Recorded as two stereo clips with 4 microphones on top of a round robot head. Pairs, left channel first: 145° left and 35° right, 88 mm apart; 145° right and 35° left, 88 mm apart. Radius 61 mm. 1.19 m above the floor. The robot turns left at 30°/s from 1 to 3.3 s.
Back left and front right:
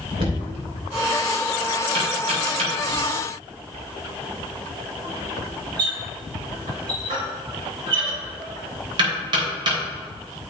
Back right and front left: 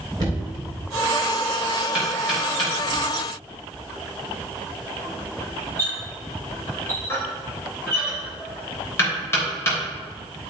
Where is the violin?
No violin in this recording.